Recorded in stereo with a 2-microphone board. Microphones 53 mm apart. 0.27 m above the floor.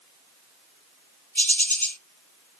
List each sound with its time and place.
1.4 s a bird: 40° left (ahead or behind), 1.5 m